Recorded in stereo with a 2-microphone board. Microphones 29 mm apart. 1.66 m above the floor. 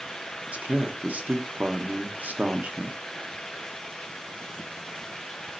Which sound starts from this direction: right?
A man speaking, at 0.5 s.